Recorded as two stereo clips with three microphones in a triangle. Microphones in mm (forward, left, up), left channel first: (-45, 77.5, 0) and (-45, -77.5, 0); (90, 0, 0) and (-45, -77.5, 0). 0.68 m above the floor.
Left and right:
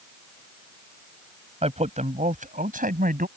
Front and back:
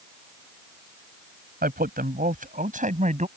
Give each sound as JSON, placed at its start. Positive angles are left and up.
{"t": 1.6, "sound": "a man speaking", "azimuth_deg": -135}